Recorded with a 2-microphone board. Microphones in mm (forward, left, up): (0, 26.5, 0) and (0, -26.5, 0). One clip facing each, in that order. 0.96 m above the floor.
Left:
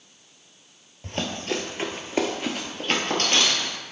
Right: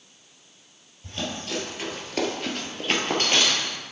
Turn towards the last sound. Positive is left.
turn(degrees=-20)  # may be behind; listen again after turning